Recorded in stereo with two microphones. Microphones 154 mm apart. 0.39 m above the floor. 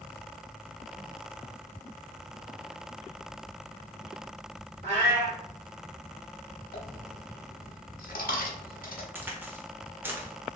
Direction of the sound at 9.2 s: 15° right (ahead or behind).